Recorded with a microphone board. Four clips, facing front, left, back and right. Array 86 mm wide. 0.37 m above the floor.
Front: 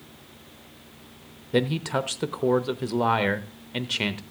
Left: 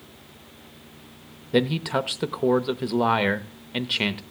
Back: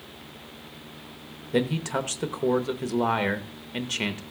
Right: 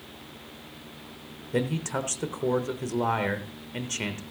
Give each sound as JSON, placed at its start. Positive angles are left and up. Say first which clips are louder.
{"t": 1.5, "sound": "a man speaking", "louder": "left 6 dB, front 1 dB", "azimuth_deg": 70, "distance_m": 0.8}